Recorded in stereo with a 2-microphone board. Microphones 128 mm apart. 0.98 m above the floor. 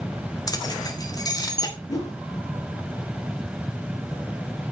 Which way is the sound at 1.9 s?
25° left (ahead or behind).